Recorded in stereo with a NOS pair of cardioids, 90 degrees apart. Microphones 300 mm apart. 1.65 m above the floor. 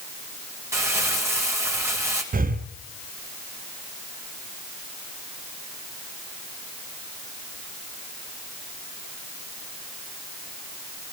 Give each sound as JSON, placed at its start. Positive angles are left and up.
{"t": 0.7, "sound": "crumpling", "azimuth_deg": -10, "distance_m": 2.5}
{"t": 2.3, "sound": "breathing", "azimuth_deg": -30, "distance_m": 0.6}